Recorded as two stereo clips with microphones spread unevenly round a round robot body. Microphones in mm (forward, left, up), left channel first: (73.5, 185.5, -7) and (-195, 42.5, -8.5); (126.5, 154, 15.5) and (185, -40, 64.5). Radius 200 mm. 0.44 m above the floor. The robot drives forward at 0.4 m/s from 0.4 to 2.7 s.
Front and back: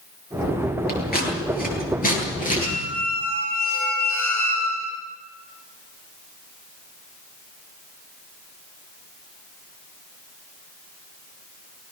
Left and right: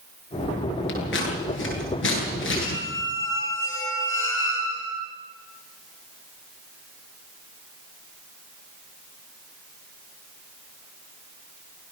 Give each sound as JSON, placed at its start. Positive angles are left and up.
{"t": 0.9, "sound": "scissors", "azimuth_deg": 90, "distance_m": 9.5}
{"t": 2.6, "sound": "a squeak", "azimuth_deg": 90, "distance_m": 8.0}